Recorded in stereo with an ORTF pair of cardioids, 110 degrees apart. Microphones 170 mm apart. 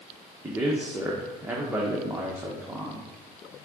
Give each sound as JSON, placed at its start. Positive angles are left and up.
{"t": 0.4, "sound": "a man speaking", "azimuth_deg": -10, "distance_m": 1.2}